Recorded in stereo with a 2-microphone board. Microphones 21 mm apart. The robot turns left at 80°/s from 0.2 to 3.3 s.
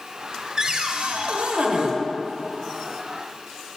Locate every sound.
0.6 s a cupboard door: 25° right, 0.7 m; by 1.9 s 135° right, 0.7 m